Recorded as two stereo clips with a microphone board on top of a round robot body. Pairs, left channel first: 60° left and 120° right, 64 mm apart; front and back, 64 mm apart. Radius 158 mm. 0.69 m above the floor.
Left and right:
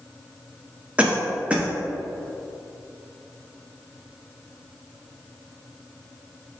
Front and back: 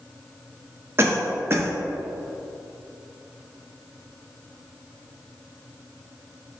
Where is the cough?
175° right, 1.0 m.